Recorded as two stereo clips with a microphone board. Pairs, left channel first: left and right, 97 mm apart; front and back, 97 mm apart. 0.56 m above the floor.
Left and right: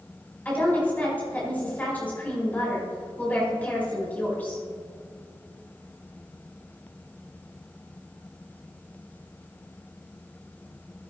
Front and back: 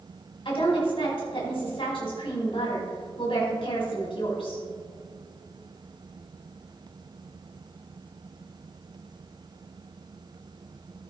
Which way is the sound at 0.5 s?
20° left.